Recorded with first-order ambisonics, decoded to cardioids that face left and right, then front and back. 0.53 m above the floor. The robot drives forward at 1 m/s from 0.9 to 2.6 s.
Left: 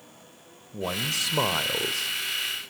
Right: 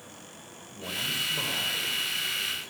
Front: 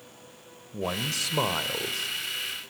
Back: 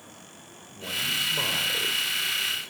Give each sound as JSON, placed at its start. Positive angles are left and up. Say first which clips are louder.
{"t": 0.7, "sound": "a man speaking", "louder": "left 3 dB, back 2 dB", "azimuth_deg": 45, "distance_m": 2.0}